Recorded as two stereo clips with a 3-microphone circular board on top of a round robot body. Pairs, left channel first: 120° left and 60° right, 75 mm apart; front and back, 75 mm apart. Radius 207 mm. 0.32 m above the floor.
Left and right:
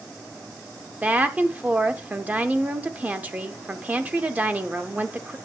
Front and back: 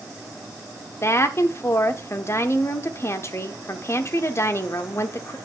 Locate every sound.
1.0 s a woman speaking: 5° right, 1.0 m